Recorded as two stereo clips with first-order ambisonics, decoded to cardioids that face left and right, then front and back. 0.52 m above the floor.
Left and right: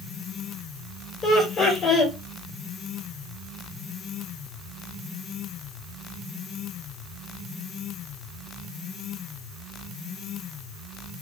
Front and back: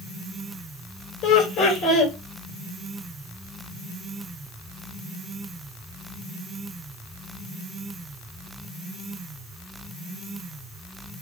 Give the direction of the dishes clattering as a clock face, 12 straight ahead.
I don't hear dishes clattering.